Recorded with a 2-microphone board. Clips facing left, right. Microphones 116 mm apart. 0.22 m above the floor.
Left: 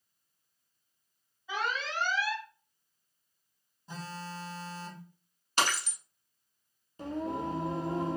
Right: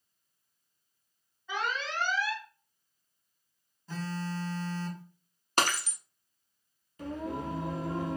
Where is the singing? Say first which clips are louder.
Left 2 dB; 30° left (ahead or behind), 0.9 m.